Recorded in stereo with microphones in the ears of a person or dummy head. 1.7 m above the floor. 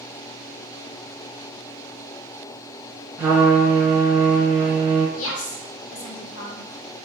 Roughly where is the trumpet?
Centre.